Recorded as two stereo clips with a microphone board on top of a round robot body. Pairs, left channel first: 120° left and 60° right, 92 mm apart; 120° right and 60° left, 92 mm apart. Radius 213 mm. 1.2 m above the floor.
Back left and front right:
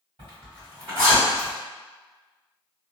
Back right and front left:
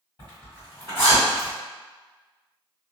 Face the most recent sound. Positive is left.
turn(degrees=-90)